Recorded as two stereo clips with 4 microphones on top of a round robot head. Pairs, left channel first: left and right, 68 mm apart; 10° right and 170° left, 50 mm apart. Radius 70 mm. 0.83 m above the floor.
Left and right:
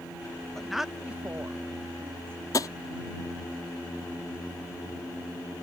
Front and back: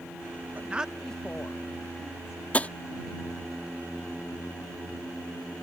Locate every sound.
0.6 s a woman speaking: 170° left; by 2.4 s 35° right
2.5 s tapping: 55° left